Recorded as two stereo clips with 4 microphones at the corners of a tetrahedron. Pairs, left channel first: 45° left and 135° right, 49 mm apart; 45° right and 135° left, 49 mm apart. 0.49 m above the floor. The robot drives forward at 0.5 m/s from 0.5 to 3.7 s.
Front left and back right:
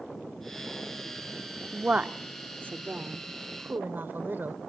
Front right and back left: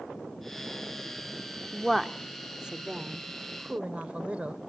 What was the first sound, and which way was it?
A woman speaking, 125° right.